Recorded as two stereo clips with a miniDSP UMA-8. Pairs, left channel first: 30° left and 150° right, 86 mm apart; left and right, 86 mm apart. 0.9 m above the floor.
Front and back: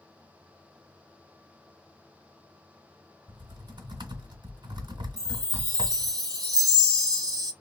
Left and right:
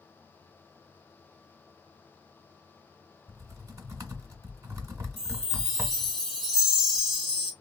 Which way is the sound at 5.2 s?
175° right.